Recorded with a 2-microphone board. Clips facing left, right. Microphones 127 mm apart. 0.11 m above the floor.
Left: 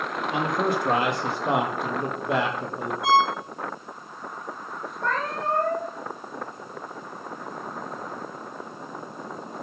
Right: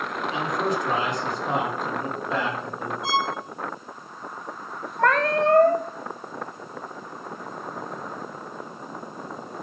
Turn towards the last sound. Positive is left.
turn(degrees=-85)